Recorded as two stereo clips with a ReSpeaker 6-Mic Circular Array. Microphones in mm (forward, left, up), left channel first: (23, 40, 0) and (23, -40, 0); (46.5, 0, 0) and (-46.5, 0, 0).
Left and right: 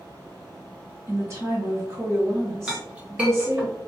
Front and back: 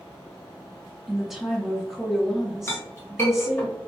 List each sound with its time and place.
1.1 s a woman speaking: 95° right, 1.0 m
2.7 s a clink: 30° right, 1.0 m